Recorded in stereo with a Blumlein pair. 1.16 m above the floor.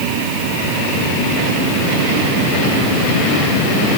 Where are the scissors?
No scissors in this recording.